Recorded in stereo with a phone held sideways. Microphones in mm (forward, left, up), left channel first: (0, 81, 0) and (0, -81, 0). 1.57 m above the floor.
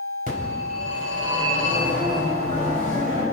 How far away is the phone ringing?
About 4.5 m.